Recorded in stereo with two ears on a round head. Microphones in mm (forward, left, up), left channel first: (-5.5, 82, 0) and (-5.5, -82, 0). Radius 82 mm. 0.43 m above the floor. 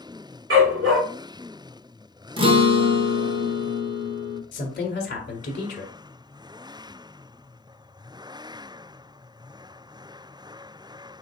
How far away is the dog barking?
About 2.5 m.